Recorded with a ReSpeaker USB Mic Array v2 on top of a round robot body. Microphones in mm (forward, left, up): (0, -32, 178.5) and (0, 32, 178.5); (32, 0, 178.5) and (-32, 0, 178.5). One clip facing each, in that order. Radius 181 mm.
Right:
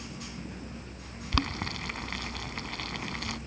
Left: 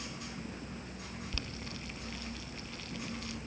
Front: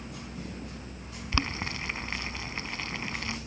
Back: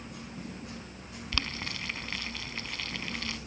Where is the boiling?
65° right.